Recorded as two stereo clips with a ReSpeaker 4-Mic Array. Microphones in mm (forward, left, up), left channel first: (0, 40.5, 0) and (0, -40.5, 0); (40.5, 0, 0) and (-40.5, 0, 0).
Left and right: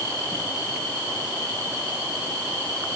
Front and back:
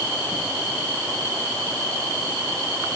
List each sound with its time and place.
Only background noise.